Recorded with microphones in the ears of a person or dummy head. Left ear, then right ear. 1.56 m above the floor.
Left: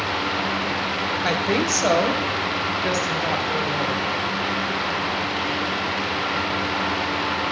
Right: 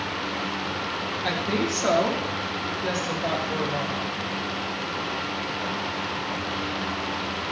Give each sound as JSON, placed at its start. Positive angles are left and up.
{"t": 1.2, "sound": "a woman speaking", "side_deg": 80, "distance_m": 1.2}